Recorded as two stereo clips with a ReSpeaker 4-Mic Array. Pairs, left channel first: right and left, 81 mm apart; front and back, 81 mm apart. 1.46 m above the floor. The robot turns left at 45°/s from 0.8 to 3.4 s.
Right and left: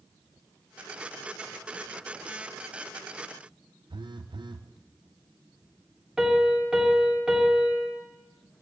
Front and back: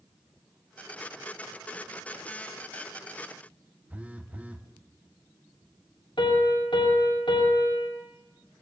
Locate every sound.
3.9 s a phone buzzing: 105° left, 0.9 m
6.2 s a piano: 10° left, 3 m